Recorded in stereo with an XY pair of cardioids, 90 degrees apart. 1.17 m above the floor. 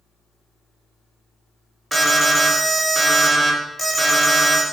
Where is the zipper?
No zipper in this recording.